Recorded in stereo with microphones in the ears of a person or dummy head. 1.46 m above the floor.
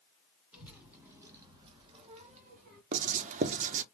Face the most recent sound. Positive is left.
turn(degrees=-40)  # may be behind; listen again after turning